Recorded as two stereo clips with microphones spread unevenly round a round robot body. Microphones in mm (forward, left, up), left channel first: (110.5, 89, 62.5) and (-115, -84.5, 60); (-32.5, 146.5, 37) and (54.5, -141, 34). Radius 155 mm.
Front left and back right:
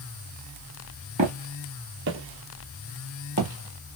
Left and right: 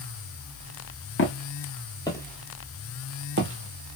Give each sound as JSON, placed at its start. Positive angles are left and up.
{"t": 1.2, "sound": "footsteps", "azimuth_deg": 155, "distance_m": 1.3}